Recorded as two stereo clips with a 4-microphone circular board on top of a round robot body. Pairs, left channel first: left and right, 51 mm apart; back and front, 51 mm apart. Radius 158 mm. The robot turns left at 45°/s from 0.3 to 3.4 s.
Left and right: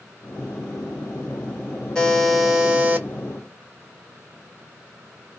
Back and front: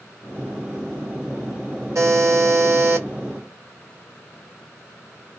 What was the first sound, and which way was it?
A buzzer, 15° left.